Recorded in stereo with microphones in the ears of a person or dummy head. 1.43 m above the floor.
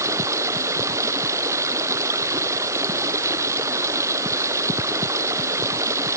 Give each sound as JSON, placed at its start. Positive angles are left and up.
{"t": 0.0, "sound": "running water", "side_deg": -15}